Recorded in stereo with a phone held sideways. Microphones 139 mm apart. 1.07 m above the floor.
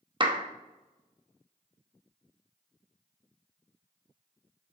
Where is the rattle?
No rattle in this recording.